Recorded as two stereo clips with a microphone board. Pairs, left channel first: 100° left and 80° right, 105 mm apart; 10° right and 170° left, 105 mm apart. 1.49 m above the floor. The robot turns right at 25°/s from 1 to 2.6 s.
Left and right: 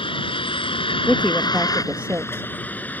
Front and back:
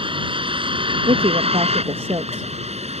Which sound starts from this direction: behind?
A woman speaking, at 1.1 s.